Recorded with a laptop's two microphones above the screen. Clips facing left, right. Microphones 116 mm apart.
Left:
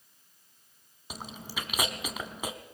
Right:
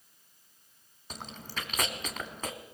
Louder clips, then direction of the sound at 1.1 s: Left 1 dB; 10° left (ahead or behind).